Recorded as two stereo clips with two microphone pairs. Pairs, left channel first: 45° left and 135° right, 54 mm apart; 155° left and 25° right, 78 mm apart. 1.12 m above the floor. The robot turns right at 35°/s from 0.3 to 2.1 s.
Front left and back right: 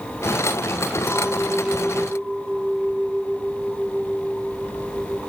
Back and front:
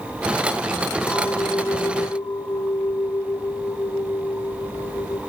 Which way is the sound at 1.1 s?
100° left.